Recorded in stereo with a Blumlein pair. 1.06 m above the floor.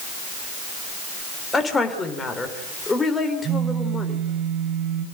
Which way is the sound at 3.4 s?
30° right.